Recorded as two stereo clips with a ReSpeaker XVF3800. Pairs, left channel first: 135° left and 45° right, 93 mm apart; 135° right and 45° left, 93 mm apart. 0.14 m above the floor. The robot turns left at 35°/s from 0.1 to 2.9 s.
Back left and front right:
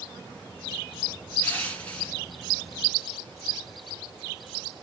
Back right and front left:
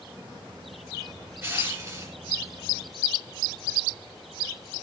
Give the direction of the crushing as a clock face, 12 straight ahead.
9 o'clock.